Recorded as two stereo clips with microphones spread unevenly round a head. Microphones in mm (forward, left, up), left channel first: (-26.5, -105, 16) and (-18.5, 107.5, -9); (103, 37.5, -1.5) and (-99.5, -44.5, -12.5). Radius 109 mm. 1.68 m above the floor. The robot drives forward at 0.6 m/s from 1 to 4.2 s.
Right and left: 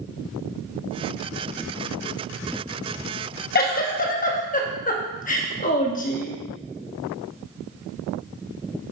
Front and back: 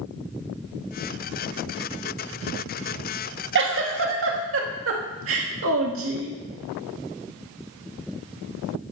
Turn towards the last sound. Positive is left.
turn(degrees=-135)